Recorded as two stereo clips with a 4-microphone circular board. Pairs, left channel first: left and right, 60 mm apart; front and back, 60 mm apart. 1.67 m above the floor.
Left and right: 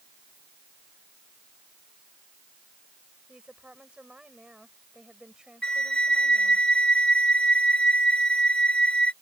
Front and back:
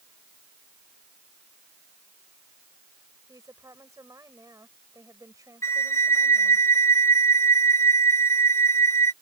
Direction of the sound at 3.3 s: 160° right.